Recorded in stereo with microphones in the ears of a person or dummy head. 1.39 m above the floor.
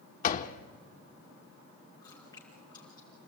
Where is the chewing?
20° left (ahead or behind), 4.5 m.